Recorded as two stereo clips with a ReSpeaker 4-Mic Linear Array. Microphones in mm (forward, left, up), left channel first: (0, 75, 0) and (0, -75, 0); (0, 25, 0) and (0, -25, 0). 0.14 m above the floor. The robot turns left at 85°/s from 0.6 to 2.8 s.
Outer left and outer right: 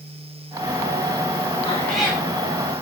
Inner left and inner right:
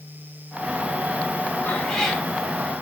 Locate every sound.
1.6 s a cat meowing: 30° left, 8 m; by 2.2 s 20° right, 8 m